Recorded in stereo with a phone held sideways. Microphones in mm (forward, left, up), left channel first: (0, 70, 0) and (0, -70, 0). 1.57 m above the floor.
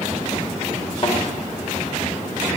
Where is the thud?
45° left (ahead or behind), 2.5 m.